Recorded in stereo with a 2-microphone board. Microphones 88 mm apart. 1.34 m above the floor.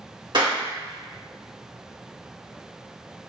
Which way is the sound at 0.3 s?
55° right (ahead or behind).